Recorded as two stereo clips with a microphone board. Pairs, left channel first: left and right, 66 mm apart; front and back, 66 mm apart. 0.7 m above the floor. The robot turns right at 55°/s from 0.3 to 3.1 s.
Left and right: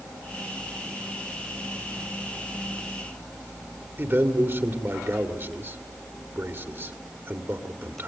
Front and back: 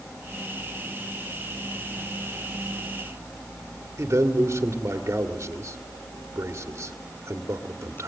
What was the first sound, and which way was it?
A man speaking, 140° right.